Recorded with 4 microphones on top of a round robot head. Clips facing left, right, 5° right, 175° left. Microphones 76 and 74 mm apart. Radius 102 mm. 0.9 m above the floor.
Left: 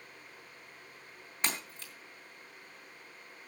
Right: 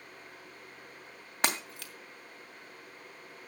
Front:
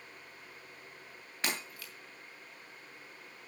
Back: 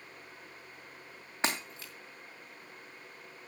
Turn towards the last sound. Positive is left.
turn(degrees=-115)